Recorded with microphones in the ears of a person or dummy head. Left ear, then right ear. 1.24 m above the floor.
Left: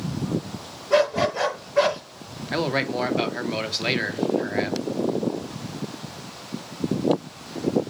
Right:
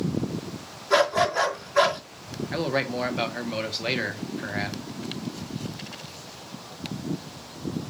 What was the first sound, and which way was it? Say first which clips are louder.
A dog barking: left 1 dB; 70° right (ahead or behind).